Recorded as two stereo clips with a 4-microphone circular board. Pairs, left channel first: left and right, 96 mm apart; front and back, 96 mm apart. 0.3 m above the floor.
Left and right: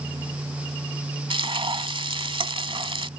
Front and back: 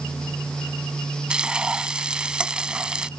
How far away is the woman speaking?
I don't hear a woman speaking.